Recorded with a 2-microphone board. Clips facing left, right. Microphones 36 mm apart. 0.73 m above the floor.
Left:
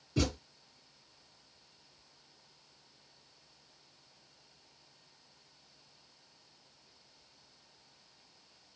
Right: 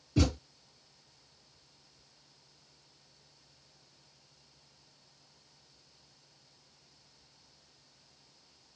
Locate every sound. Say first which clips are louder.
0.2 s a thud: right 3 dB; 10° left (ahead or behind), 1.4 m